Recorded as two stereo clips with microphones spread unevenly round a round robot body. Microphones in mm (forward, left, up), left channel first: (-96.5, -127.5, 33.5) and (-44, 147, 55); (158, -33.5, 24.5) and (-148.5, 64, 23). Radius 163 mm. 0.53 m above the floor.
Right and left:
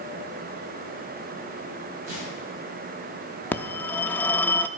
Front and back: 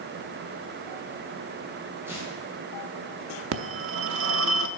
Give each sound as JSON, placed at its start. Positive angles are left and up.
{"t": 2.1, "sound": "tearing paper", "azimuth_deg": 80, "distance_m": 4.5}
{"t": 3.5, "sound": "a phone ringing", "azimuth_deg": 180, "distance_m": 0.6}